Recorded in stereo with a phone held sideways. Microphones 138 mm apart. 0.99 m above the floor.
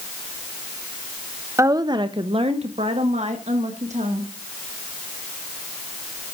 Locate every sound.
1.6 s a woman speaking: 20° right (ahead or behind), 0.6 m; by 4.3 s 60° right (ahead or behind), 2 m